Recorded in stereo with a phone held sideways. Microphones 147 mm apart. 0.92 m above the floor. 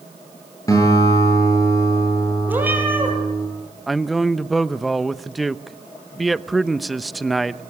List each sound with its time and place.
0.7 s a guitar: 25° left (ahead or behind), 8.5 m
2.5 s a cat meowing: 15° right (ahead or behind), 5 m
3.9 s a man speaking: centre (ahead or behind), 0.7 m